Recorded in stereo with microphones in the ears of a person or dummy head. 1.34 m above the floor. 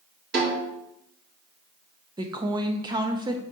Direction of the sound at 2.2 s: 25° right (ahead or behind).